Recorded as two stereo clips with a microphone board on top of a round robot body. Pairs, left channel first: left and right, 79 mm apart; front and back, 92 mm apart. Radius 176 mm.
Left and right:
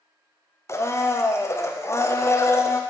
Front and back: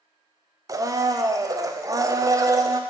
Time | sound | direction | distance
0.7 | a blender | 135° left | 0.6 m